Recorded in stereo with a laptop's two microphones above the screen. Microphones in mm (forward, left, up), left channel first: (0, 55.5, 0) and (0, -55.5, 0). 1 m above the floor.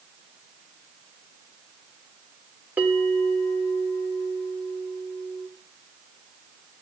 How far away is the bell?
About 3.5 m.